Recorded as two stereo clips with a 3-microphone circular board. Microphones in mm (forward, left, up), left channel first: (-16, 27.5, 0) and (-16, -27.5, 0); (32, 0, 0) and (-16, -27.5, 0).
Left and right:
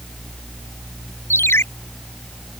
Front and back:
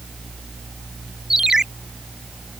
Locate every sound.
1.3 s a ringtone: 130° left